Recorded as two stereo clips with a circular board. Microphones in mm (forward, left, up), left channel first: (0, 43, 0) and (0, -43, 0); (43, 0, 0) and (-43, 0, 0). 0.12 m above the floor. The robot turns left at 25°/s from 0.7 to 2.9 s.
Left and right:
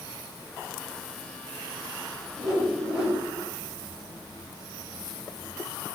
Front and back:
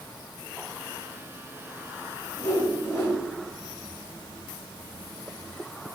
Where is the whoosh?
10° right, 1.6 m; by 3.2 s 25° right, 1.6 m.